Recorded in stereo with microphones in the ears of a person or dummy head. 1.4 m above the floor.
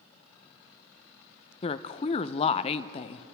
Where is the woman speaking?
40° left (ahead or behind), 0.6 m.